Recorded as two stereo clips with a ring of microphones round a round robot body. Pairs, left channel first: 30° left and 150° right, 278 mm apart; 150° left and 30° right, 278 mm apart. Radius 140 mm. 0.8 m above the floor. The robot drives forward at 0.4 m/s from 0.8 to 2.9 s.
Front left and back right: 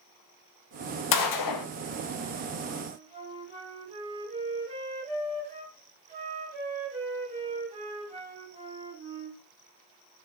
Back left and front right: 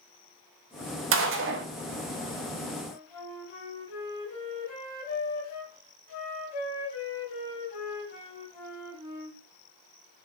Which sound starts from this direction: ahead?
A gunshot, at 1.1 s.